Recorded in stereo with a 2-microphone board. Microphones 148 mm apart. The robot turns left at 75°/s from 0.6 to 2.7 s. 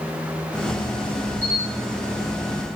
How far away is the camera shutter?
About 4 m.